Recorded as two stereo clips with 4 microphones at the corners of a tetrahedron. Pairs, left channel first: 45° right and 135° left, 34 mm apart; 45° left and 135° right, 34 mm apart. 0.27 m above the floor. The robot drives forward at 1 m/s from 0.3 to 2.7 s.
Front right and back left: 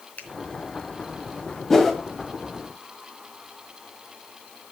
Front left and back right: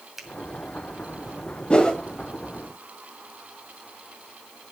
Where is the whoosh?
25° left, 1.7 m; by 2.0 s 35° left, 1.6 m.